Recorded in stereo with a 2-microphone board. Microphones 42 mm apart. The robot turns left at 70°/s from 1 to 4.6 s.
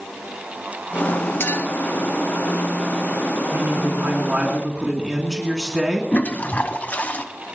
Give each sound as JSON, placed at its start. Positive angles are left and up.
{"t": 1.4, "sound": "a clink", "side_deg": 60, "distance_m": 2.0}
{"t": 3.5, "sound": "a man speaking", "azimuth_deg": -80, "distance_m": 2.5}
{"t": 6.1, "sound": "a toilet flushing", "side_deg": 40, "distance_m": 1.0}